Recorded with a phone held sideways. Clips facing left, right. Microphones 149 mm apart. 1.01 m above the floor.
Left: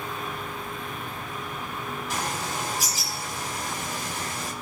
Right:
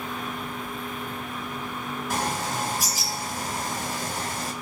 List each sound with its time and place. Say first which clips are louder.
2.1 s a bird: right 4 dB; 55° right (ahead or behind), 5 m